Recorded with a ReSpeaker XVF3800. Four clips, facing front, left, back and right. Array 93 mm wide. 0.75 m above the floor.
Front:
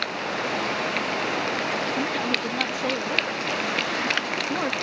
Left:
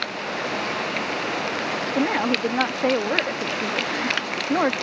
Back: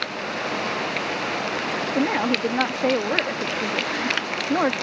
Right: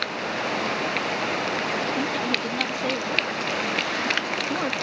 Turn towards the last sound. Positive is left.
turn(degrees=135)